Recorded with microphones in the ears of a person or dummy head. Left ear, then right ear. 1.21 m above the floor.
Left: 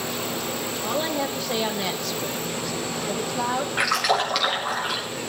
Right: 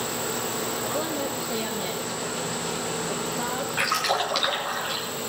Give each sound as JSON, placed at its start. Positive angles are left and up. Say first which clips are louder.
{"t": 0.8, "sound": "a woman speaking", "louder": "left 3 dB", "side_deg": 25, "distance_m": 1.1}
{"t": 3.8, "sound": "a splash", "louder": "left 2 dB", "side_deg": 15, "distance_m": 1.6}